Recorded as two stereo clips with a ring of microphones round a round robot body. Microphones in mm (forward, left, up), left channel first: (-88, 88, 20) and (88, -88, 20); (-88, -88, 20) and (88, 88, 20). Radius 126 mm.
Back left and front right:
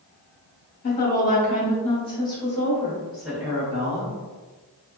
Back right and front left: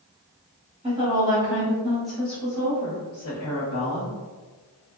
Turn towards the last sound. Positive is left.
turn(degrees=-105)